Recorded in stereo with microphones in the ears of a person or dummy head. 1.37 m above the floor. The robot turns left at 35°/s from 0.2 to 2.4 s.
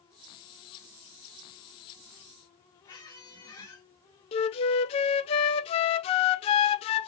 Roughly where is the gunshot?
I don't hear a gunshot.